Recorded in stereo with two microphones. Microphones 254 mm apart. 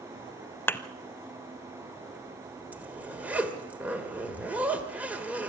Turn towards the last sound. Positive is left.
turn(degrees=-5)  # may be behind; listen again after turning